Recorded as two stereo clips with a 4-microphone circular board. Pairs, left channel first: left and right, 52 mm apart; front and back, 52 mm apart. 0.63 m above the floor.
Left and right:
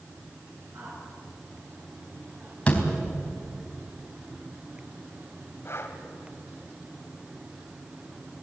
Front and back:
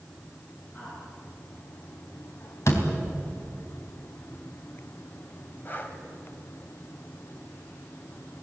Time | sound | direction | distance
0.7 | a woman speaking | 65° right | 10 m
2.7 | a door slam | 20° left | 3.5 m
5.7 | breathing | 50° left | 2.5 m